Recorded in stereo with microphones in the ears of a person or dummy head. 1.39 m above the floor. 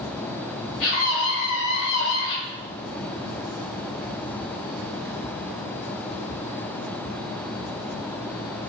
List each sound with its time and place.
0.8 s a scream: 80° left, 6.5 m; by 2.4 s 75° left (ahead or behind), 6 m